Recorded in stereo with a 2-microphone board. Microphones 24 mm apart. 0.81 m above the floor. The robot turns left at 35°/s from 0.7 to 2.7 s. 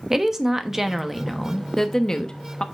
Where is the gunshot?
I don't hear a gunshot.